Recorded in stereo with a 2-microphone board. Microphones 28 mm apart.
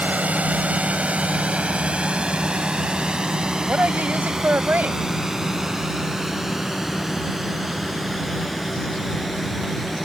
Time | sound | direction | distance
0.0 | a drone | 60° right (ahead or behind) | ?
3.7 | a woman speaking | 75° right (ahead or behind) | ?